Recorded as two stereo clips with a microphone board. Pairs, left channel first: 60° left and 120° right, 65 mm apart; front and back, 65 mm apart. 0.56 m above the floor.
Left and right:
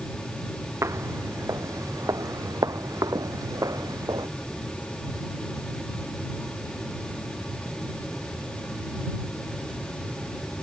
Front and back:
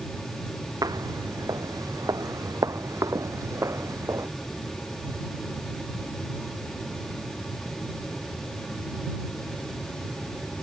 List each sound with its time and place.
0.8 s footsteps: 160° right; by 4.3 s 140° right